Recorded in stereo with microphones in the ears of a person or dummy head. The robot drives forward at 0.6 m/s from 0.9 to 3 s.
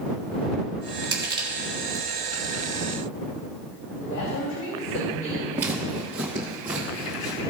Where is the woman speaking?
80° left, 2.5 m.